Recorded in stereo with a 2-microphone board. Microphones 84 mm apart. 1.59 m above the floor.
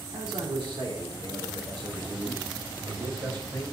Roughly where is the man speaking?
Right.